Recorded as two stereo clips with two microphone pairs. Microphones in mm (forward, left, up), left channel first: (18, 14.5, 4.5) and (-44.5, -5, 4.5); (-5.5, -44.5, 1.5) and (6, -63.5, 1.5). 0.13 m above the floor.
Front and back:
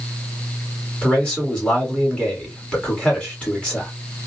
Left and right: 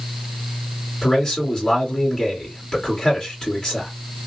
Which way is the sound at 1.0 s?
75° left.